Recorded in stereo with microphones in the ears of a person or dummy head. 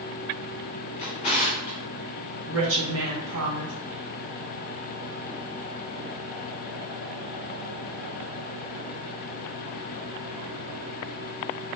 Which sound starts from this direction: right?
A woman speaking, at 2.5 s.